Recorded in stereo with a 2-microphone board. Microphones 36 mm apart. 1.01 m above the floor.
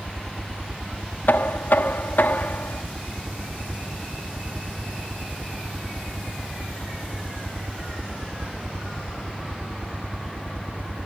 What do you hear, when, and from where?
0.0 s a helicopter: 50° right (ahead or behind)
1.3 s knocking: 75° left (ahead or behind)